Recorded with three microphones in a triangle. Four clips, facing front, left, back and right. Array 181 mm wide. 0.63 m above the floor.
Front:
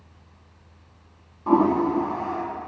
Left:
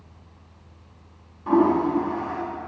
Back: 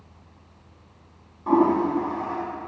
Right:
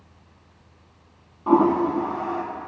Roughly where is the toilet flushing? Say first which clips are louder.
Right 1 dB, even; right.